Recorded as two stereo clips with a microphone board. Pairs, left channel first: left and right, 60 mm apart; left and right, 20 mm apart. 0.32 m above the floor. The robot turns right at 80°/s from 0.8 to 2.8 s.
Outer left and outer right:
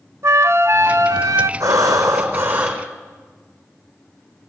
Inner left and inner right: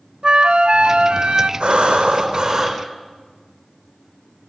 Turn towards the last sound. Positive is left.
turn(degrees=-10)